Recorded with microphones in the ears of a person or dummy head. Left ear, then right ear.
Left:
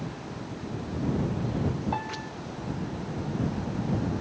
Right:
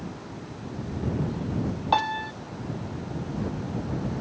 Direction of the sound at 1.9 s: 55° right (ahead or behind).